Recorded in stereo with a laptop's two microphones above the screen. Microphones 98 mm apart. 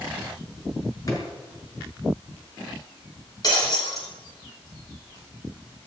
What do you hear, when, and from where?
1.1 s a drawer: 35° left (ahead or behind), 6.5 m
3.4 s breaking glass: 40° left (ahead or behind), 7.5 m